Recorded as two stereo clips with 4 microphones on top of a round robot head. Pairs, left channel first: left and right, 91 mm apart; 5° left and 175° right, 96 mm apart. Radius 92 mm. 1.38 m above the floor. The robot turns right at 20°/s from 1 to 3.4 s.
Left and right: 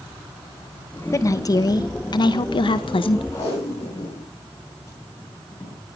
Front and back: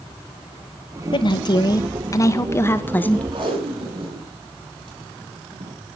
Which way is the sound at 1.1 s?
35° left.